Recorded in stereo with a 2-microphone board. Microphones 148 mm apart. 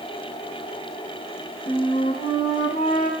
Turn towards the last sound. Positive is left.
turn(degrees=85)